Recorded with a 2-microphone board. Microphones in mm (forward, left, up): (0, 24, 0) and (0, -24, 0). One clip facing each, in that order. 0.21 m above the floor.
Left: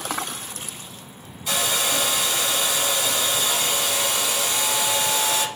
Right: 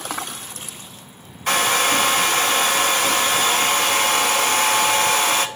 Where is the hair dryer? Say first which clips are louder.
Right 6 dB; 55° right (ahead or behind), 0.6 m.